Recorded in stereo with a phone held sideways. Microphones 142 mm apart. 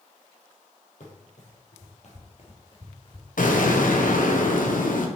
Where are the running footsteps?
65° left (ahead or behind), 3 m; by 3.3 s 30° left (ahead or behind), 1.6 m.